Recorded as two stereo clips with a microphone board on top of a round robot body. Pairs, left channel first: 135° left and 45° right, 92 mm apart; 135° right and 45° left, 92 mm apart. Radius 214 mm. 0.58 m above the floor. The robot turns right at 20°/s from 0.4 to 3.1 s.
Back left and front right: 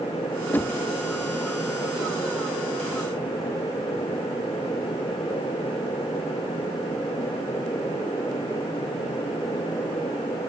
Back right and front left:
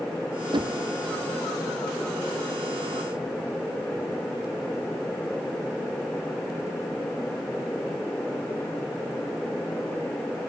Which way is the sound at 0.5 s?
70° left.